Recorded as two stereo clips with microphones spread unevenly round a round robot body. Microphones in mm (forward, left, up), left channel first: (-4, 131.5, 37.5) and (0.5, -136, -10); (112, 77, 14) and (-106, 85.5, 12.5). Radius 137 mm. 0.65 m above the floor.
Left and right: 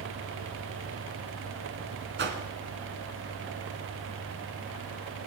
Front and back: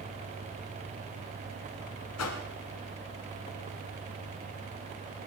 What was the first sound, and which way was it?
A whoosh, 35° right.